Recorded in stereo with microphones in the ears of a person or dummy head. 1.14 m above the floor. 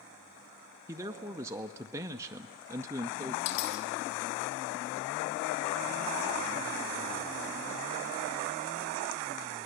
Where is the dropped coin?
85° left, 5 m.